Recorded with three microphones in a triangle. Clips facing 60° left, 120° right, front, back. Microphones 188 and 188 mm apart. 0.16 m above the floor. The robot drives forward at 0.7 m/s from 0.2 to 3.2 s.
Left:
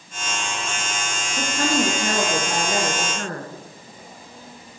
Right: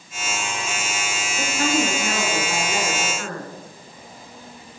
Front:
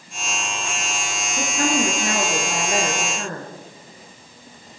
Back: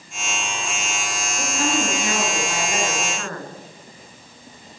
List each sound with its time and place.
1.4 s a woman speaking: 25° left, 2.5 m; by 3.5 s 50° left, 1.5 m